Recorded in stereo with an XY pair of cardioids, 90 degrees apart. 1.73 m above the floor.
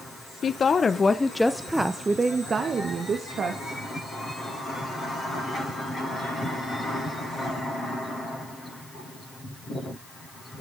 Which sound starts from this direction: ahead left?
A woman speaking, at 0.4 s.